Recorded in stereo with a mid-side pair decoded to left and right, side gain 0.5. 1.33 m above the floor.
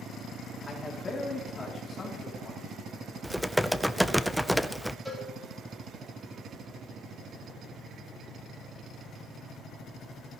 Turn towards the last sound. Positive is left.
turn(degrees=-10)